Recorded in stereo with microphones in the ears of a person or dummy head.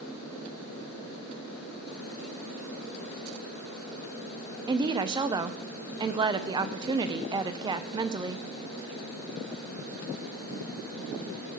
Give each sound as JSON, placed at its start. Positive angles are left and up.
{"t": 4.7, "sound": "a woman speaking", "side_deg": -20, "distance_m": 0.8}